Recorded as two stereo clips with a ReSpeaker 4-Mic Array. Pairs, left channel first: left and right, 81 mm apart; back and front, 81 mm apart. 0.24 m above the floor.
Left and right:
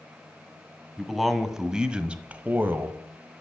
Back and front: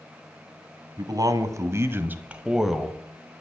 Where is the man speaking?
Straight ahead, 1.7 m; by 3.0 s 105° right, 1.3 m.